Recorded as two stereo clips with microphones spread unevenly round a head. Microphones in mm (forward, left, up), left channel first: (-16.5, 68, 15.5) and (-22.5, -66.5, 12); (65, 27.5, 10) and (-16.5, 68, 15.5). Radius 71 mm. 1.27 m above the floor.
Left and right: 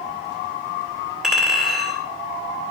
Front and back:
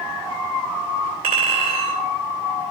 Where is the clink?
Straight behind, 2 m.